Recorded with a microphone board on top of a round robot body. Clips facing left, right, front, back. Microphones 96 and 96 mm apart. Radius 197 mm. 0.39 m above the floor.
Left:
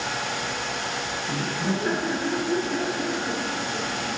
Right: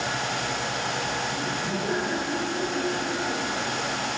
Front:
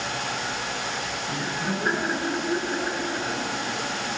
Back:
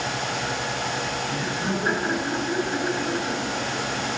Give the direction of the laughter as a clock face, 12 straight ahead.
9 o'clock.